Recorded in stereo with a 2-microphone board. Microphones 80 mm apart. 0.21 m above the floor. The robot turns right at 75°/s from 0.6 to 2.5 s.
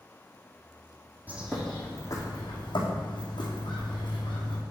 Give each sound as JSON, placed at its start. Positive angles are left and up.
{"t": 1.3, "sound": "a bird", "azimuth_deg": -20, "distance_m": 2.5}